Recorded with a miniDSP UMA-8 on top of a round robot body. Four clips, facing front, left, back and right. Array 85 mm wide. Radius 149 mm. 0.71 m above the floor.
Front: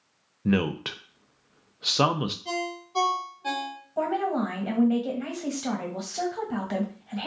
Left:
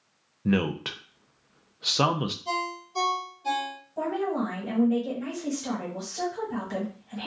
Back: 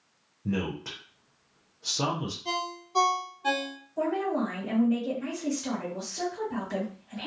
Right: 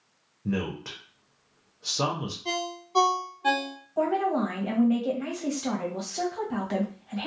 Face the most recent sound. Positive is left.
turn(degrees=-30)